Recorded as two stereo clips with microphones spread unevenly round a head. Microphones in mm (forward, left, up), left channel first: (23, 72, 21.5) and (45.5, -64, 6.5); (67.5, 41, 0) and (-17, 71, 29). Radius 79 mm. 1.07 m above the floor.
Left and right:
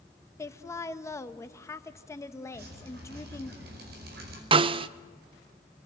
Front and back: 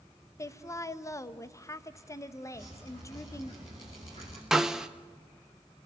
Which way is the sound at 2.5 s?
85° right.